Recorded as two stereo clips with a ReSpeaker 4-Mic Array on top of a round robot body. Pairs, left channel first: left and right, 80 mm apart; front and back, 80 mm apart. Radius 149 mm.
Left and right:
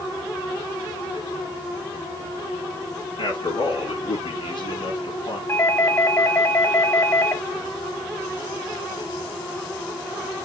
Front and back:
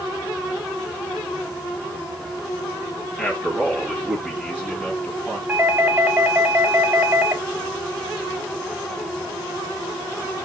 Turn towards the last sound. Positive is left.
turn(degrees=130)